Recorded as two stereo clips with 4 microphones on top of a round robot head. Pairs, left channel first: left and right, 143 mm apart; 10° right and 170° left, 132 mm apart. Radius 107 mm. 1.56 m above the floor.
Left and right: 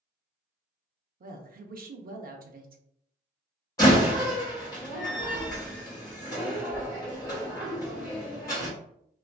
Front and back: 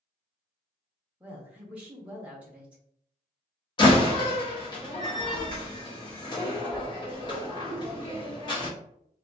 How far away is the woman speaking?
About 0.6 m.